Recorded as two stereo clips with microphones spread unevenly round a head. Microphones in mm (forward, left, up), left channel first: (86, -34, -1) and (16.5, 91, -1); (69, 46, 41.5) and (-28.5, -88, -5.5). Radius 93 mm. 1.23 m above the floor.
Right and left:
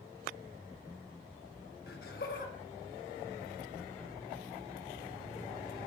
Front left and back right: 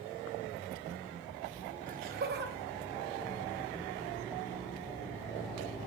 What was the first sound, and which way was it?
Laughter, 90° right.